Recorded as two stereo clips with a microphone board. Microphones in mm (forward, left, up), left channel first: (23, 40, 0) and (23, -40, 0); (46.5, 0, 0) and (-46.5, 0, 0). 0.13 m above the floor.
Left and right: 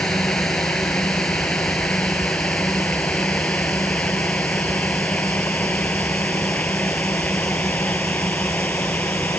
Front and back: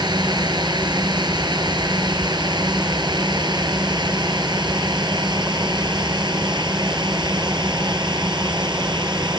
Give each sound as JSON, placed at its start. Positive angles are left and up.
{"t": 0.0, "sound": "a drone", "azimuth_deg": 170}